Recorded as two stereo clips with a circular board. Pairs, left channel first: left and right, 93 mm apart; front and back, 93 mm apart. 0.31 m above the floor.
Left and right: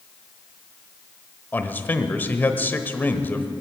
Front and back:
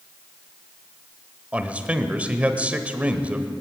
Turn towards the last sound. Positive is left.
turn(degrees=125)